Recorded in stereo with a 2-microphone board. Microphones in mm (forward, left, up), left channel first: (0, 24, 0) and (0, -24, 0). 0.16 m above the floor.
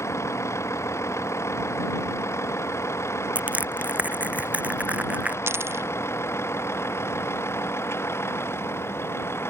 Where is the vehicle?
75° left (ahead or behind); by 9.5 s 60° left (ahead or behind).